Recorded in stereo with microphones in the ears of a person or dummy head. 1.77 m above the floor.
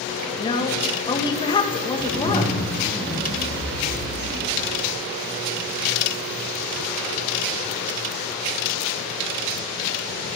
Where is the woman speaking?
25° left (ahead or behind), 1.7 m.